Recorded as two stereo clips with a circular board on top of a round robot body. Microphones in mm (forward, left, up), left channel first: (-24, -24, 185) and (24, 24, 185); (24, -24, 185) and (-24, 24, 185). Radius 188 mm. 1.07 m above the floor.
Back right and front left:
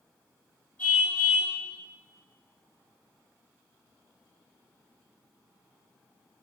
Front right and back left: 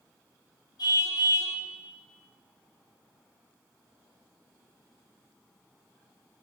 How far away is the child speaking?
No child speaking in this recording.